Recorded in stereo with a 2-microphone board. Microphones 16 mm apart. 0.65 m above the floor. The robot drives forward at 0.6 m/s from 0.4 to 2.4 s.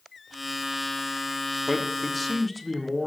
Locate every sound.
1.7 s a man speaking: centre (ahead or behind), 1.6 m